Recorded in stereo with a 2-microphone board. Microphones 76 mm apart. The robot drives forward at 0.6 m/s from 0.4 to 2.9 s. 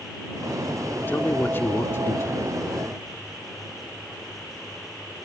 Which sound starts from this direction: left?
A man speaking, at 1.1 s.